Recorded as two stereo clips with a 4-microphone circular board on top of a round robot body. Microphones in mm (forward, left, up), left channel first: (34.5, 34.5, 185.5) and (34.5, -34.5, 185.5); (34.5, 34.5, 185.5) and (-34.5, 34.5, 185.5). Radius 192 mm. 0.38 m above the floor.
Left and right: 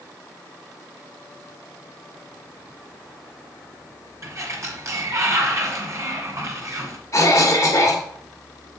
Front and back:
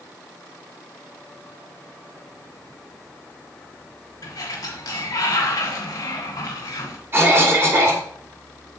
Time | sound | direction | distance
4.2 | a sliding door | 45° right | 1.4 m
7.1 | a cough | 130° left | 2.5 m